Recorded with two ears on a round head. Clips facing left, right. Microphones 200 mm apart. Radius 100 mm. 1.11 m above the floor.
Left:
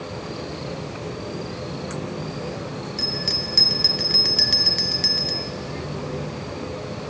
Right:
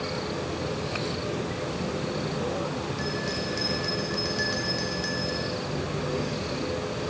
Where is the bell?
35° left (ahead or behind), 1.3 m.